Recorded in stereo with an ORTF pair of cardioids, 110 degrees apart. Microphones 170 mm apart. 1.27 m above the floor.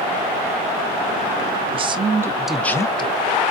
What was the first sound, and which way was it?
A man speaking, 35° right.